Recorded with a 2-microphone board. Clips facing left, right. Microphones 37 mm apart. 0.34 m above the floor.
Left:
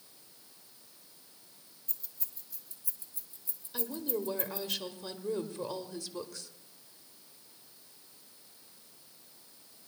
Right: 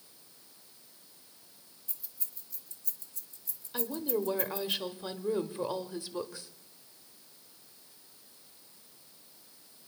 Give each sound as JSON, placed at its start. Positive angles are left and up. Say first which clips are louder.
{"t": 1.9, "sound": "keys jangling", "louder": "even", "side_deg": -10, "distance_m": 1.7}
{"t": 3.7, "sound": "a woman speaking", "louder": "right 3 dB", "side_deg": -20, "distance_m": 0.9}